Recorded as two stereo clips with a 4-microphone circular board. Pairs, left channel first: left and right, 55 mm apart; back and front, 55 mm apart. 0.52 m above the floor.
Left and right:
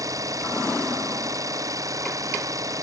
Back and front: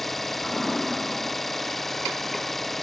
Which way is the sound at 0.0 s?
95° right.